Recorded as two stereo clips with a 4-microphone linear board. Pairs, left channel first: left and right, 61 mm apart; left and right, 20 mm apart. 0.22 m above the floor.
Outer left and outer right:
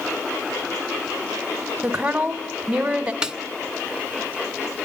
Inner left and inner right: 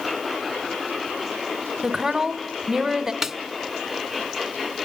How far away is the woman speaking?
About 1.4 m.